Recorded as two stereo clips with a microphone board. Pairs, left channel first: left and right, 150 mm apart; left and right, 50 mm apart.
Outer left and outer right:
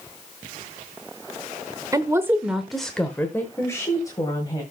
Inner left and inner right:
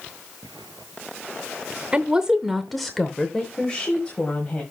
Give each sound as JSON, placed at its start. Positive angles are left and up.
{"t": 1.9, "sound": "a woman speaking", "side_deg": -25, "distance_m": 0.8}